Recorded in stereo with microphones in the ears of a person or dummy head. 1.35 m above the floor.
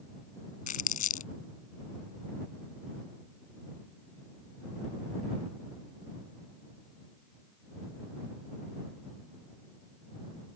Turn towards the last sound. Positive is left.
turn(degrees=45)  # may be behind; listen again after turning